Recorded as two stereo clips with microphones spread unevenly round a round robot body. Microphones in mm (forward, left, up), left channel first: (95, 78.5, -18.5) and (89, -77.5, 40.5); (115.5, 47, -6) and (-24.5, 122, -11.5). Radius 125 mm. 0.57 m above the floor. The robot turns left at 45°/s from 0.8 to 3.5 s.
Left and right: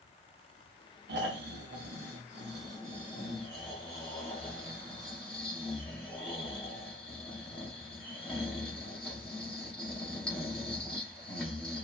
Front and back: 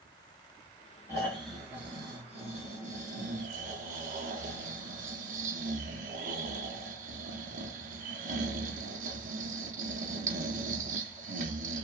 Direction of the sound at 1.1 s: 100° right.